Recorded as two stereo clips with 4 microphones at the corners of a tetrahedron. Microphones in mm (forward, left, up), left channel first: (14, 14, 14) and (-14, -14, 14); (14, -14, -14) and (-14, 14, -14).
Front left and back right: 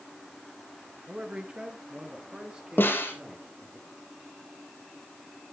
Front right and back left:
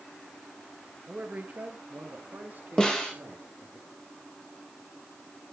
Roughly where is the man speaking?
Behind.